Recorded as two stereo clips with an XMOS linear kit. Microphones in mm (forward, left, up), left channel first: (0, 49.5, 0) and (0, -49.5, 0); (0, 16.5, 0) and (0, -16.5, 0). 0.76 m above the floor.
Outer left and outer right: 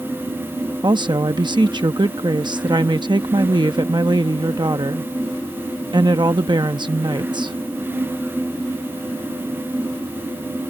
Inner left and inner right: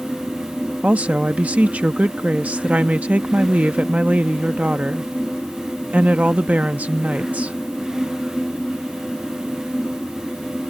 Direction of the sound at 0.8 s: 50° right (ahead or behind).